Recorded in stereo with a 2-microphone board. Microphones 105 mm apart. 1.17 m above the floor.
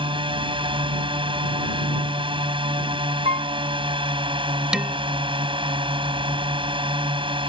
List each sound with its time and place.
0.0 s a drone: 55° right (ahead or behind)
3.2 s a piano: 75° right (ahead or behind)
4.7 s dishes clattering: 5° right (ahead or behind)